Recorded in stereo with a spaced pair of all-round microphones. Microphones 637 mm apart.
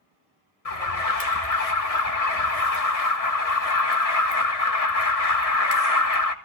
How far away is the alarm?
About 1.8 m.